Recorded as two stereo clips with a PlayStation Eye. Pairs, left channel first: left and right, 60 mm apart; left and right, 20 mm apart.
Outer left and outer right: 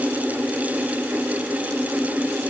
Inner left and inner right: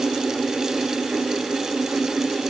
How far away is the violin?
No violin in this recording.